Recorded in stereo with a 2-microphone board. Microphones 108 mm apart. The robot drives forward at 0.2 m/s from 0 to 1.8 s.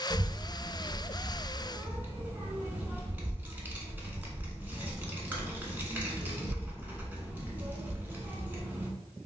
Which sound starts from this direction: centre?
A child speaking, at 0.1 s.